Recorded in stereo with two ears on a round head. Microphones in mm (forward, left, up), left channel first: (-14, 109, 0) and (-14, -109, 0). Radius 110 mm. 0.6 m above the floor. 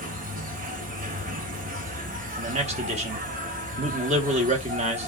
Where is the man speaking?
25° right (ahead or behind), 1.0 m.